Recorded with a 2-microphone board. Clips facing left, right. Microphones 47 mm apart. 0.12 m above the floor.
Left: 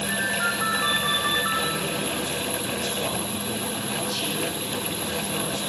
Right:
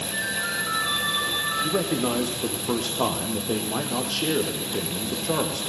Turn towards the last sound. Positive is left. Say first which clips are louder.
# right 3 dB
turn(degrees=-70)  # may be behind; listen again after turning